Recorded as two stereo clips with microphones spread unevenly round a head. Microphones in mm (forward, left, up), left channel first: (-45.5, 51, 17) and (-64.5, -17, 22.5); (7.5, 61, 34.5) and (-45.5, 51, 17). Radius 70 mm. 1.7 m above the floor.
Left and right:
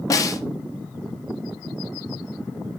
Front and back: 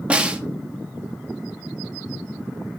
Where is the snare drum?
115° left, 0.9 m.